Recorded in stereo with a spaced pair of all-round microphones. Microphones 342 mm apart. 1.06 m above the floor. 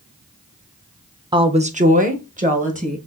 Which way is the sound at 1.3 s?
15° right (ahead or behind).